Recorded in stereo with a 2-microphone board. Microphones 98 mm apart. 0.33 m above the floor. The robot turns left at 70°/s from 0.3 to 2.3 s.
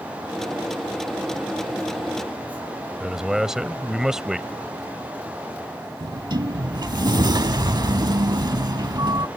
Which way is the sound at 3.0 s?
5° right (ahead or behind).